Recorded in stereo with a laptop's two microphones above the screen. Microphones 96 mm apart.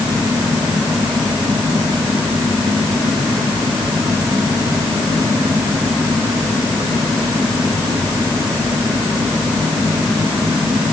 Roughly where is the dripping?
No dripping in this recording.